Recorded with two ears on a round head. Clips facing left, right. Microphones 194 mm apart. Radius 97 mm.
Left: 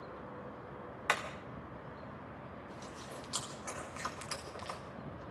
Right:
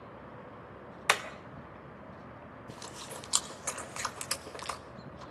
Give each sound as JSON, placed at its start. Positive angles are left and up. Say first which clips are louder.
{"t": 1.1, "sound": "hammering", "louder": "right 4 dB", "side_deg": -60, "distance_m": 1.5}
{"t": 2.7, "sound": "chewing", "louder": "right 1 dB", "side_deg": -65, "distance_m": 1.8}